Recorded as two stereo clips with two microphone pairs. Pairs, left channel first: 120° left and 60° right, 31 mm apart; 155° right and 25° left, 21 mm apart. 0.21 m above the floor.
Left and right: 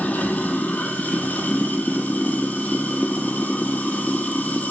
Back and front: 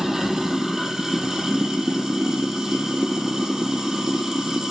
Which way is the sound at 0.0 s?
90° left.